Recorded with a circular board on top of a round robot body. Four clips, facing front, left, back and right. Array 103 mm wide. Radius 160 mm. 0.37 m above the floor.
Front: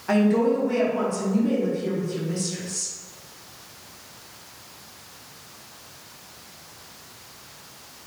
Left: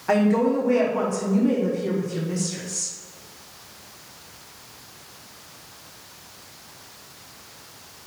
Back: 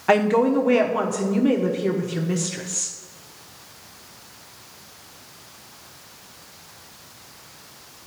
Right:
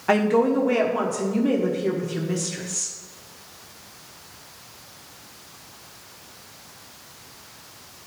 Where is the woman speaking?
160° right, 1.3 m.